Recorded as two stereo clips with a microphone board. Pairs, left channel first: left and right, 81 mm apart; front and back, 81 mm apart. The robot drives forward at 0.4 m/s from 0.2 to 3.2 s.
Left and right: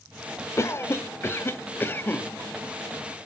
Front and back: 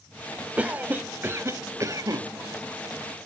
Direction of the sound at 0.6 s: 115° left.